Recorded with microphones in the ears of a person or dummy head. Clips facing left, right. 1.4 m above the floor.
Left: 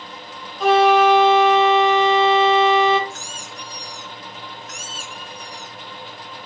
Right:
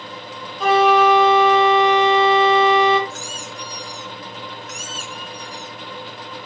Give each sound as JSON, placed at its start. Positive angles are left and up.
{"t": 0.6, "sound": "a flute", "side_deg": 0, "distance_m": 0.6}
{"t": 3.1, "sound": "a squeak", "side_deg": -45, "distance_m": 0.9}